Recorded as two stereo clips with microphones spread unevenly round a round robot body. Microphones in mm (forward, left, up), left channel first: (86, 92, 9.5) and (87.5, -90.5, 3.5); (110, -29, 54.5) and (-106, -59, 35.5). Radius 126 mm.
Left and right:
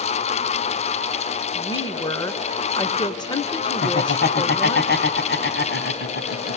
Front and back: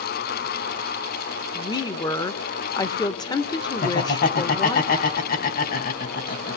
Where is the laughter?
60° left, 2.5 m.